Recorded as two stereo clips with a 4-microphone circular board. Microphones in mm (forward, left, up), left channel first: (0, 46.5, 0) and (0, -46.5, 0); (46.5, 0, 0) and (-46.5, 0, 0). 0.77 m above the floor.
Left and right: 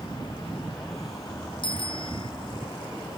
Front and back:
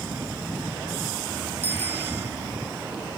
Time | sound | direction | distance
1.6 | a bicycle bell | 115° left | ?